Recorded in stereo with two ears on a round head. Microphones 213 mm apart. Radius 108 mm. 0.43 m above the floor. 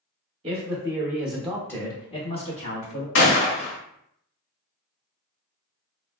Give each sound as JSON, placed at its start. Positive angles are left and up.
{"t": 0.4, "sound": "a man speaking", "side_deg": -25, "distance_m": 0.9}
{"t": 3.1, "sound": "a gunshot", "side_deg": 60, "distance_m": 0.8}